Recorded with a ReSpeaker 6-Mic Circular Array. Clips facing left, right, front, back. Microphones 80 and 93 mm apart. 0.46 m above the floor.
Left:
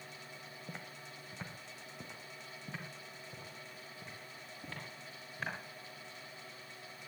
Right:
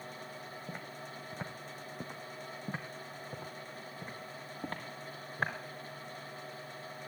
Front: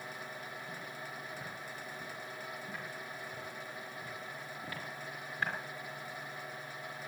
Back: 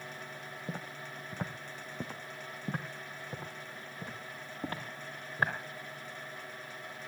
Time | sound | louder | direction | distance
0.7 | footsteps | right 3 dB, back 2 dB | 165° right | 1.4 m